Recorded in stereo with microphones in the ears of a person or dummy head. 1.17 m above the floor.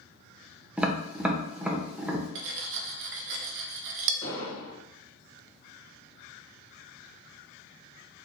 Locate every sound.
0.8 s tapping: 10° right (ahead or behind), 0.7 m
2.4 s cutlery clinking: 65° right (ahead or behind), 0.5 m
4.2 s an explosion: 25° left (ahead or behind), 2 m